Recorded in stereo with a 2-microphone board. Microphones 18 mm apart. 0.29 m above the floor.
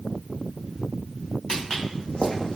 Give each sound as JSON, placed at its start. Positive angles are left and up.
{"t": 1.5, "sound": "footsteps", "side_deg": 50, "distance_m": 0.9}